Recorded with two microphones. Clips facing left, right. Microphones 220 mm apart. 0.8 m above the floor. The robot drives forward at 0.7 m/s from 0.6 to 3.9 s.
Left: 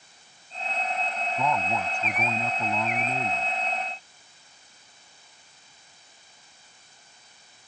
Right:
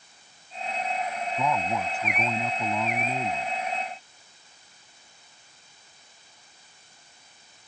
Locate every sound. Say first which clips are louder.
1.4 s a man speaking: even; 5° right (ahead or behind)